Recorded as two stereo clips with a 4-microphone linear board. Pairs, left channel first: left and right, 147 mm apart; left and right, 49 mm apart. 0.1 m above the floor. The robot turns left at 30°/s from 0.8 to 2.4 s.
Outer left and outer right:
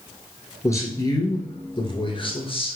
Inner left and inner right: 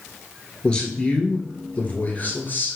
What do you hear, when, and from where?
0.6 s a man speaking: 145° left, 1.3 m; by 2.8 s 100° left, 1.3 m